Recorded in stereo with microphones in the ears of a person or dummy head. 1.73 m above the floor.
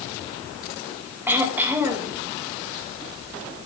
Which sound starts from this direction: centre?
Throat clearing, at 1.3 s.